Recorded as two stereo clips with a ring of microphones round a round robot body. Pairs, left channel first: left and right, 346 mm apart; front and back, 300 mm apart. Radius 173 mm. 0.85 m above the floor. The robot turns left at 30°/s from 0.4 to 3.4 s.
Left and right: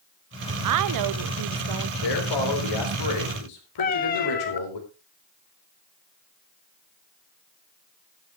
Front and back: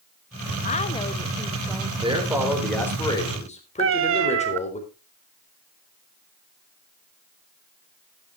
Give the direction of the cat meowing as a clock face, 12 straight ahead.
7 o'clock.